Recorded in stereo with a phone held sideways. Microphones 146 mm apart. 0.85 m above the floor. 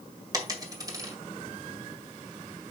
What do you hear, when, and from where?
0.3 s a dropped coin: 25° right (ahead or behind), 1.8 m